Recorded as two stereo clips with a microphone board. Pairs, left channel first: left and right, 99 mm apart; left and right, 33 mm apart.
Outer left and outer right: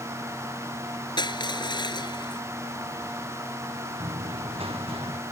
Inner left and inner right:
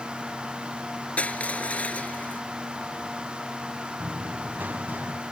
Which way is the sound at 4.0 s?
70° right (ahead or behind).